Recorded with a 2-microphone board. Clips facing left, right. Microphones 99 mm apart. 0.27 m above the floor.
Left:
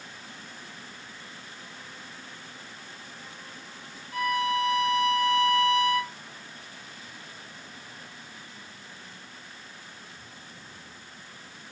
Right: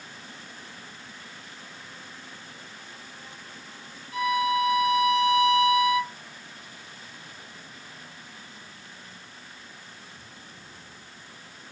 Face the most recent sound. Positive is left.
turn(degrees=35)  # may be behind; listen again after turning